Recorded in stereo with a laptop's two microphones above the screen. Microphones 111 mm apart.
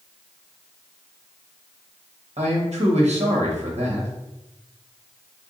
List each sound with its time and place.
2.4 s a man speaking: 75° right (ahead or behind), 1.1 m